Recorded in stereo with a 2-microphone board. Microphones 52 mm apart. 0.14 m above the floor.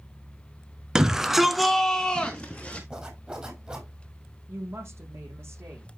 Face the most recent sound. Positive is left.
turn(degrees=-50)  # may be behind; listen again after turning